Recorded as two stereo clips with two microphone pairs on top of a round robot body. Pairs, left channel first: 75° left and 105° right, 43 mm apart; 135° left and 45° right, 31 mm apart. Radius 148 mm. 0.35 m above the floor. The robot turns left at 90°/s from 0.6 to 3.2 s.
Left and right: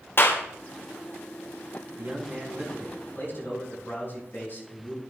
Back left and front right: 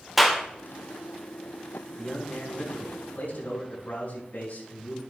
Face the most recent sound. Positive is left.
turn(degrees=115)